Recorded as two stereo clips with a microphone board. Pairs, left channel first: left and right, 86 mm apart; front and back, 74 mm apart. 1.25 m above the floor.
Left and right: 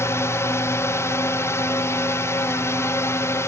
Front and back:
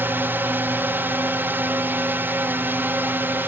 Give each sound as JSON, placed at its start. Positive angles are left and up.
{"t": 0.0, "sound": "a drone", "azimuth_deg": 130}